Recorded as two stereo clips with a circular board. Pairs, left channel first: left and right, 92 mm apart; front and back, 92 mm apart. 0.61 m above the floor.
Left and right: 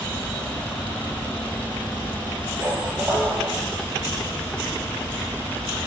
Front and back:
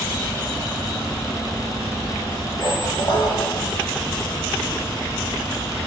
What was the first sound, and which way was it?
A squeak, 25° right.